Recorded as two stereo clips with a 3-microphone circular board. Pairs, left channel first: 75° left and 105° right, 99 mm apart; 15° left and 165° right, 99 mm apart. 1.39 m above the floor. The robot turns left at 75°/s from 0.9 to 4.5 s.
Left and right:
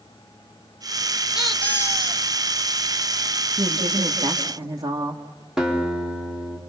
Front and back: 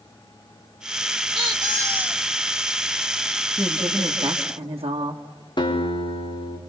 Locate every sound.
1.4 s a squeak: 170° left, 2.0 m; by 2.2 s 105° left, 2.0 m
3.6 s a woman speaking: 75° right, 2 m; by 5.2 s 145° right, 2 m
5.6 s a guitar: 20° right, 4 m